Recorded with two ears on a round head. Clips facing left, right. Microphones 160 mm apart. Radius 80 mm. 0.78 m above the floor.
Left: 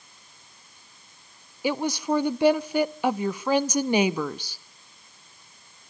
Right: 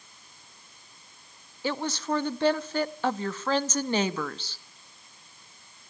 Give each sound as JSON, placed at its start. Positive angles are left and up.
{"t": 1.6, "sound": "a woman speaking", "side_deg": 10, "distance_m": 0.7}